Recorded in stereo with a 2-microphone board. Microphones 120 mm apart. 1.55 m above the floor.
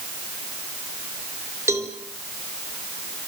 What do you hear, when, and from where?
1.7 s a cowbell: 25° right (ahead or behind), 3.5 m